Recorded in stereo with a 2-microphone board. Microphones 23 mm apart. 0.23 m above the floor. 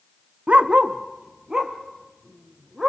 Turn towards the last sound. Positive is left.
turn(degrees=-20)  # may be behind; listen again after turning